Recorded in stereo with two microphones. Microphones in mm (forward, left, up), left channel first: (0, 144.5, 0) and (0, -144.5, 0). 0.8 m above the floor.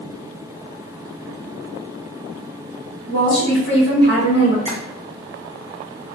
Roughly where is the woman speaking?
Left.